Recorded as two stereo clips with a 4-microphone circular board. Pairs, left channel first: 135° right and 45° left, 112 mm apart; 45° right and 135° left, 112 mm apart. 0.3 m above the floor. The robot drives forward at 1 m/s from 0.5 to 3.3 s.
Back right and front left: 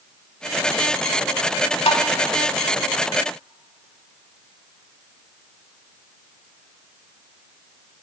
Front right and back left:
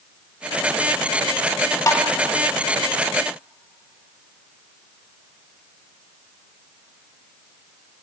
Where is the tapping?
105° right, 0.6 m; by 2.0 s 120° right, 0.6 m.